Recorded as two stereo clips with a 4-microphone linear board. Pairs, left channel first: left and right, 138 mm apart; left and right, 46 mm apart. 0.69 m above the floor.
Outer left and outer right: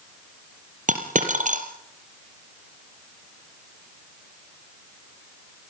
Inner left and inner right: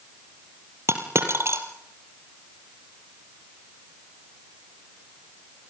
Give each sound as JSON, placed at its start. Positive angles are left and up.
{"t": 0.9, "sound": "a dropped coin", "side_deg": -70, "distance_m": 3.0}